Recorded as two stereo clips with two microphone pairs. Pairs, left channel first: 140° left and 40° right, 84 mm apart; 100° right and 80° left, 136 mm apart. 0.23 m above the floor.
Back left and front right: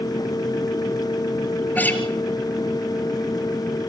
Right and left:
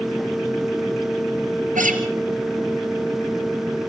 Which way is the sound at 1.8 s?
70° left.